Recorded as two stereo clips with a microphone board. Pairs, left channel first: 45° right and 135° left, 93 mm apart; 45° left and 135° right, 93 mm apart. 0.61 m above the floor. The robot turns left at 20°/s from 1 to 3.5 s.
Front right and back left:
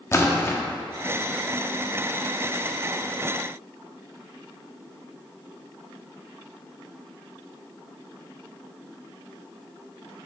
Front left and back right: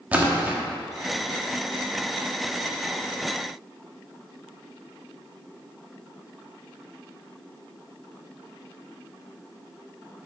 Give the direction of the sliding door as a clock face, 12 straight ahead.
No sliding door in this recording.